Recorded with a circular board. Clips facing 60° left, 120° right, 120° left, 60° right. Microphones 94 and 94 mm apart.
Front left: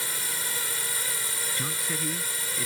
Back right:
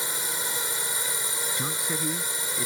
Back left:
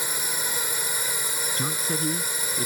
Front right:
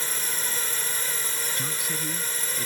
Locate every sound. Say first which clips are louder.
0.0 s a drone: back right 2 dB, back left 2 dB; 175° right
1.6 s a man speaking: back right 2 dB, back left 4 dB; 170° left